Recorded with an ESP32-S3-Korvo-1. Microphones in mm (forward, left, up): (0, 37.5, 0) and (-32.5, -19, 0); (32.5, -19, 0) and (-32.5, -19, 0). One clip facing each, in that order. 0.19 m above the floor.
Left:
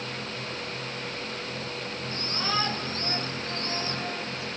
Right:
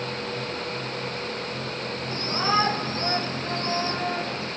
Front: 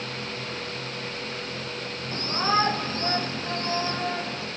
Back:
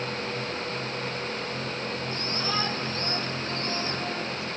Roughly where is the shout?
Ahead right.